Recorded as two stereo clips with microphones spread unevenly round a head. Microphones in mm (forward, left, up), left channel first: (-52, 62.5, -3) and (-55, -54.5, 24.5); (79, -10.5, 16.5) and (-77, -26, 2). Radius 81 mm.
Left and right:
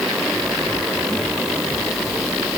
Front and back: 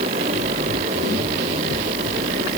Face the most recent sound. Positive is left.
No sound to turn to.